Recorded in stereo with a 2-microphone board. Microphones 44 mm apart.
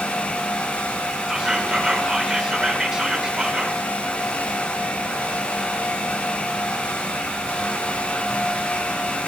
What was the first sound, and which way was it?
Whispering, 10° right (ahead or behind).